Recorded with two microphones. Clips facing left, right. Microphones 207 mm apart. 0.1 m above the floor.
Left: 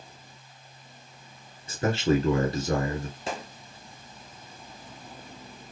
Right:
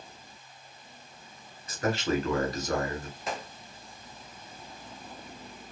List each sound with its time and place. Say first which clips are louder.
1.7 s a man speaking: left 4 dB; 30° left (ahead or behind), 1.2 m
3.3 s a gunshot: even; 30° left (ahead or behind), 1.0 m